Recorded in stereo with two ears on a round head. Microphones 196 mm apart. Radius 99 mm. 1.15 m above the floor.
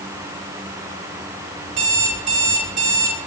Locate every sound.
1.7 s an alarm clock: 35° right (ahead or behind), 5.5 m